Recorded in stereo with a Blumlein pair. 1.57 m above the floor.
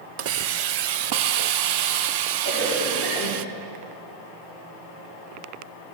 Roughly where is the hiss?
Ahead right.